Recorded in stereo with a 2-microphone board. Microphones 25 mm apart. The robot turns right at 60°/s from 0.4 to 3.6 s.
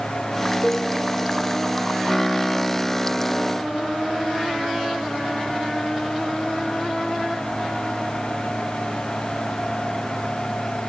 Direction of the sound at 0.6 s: 35° left (ahead or behind).